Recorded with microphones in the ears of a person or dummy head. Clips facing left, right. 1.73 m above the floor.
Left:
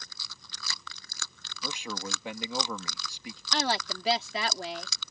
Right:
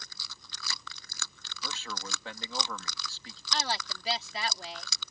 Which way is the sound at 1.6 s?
15° left (ahead or behind).